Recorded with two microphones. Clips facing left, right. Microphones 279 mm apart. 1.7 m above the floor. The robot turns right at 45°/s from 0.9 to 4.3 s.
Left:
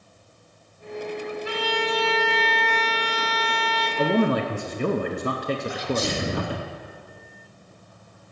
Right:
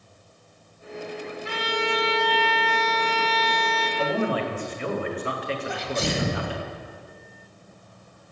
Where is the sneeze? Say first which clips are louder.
Left 2 dB; 65° right (ahead or behind), 1.4 m.